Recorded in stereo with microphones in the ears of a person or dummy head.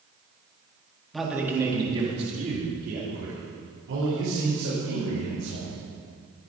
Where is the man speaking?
Centre (ahead or behind), 3 m; by 5.8 s 80° right, 7 m.